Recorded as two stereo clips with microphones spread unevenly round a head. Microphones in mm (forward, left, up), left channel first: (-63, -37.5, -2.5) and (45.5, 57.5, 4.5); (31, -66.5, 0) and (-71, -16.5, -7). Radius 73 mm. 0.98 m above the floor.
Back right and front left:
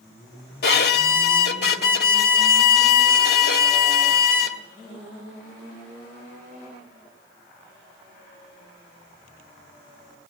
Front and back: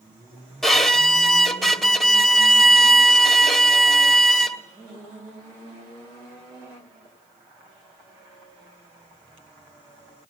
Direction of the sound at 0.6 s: 115° right.